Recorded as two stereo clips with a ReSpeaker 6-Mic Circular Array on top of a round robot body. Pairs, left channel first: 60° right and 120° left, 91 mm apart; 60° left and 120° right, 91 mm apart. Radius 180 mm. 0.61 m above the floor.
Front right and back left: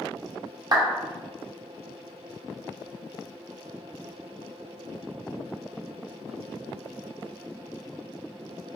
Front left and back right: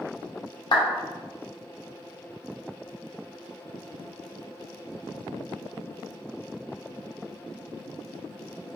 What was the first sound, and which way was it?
A clap, 85° left.